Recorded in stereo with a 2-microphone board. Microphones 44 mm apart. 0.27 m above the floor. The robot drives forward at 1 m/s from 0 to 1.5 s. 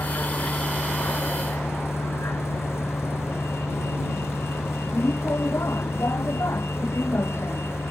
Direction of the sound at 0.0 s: 70° left (ahead or behind).